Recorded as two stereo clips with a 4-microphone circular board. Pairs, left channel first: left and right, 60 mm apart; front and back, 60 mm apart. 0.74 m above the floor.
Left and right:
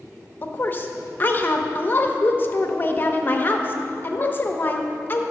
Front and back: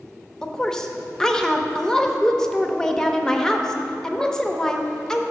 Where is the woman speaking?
75° left, 0.6 m.